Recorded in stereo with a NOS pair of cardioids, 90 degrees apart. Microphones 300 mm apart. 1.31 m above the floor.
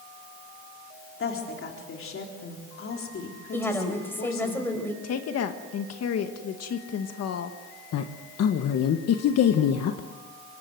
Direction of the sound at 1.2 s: 45° left.